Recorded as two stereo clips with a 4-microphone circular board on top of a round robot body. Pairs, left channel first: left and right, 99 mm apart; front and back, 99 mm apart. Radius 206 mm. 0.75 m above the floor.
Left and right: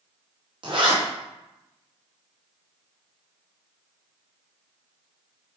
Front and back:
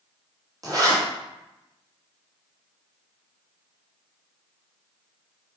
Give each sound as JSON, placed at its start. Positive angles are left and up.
{"t": 0.6, "sound": "a zipper", "azimuth_deg": -125, "distance_m": 2.5}